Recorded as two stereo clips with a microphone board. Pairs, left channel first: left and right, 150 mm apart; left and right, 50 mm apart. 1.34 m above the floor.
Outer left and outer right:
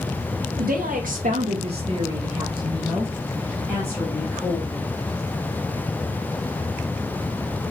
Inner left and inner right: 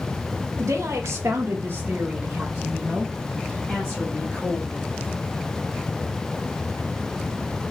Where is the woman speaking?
80° right, 1.1 m; by 4.8 s 25° left (ahead or behind), 2.0 m.